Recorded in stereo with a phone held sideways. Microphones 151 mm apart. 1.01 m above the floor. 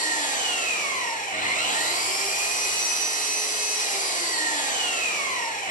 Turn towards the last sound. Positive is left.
turn(degrees=60)  # may be behind; listen again after turning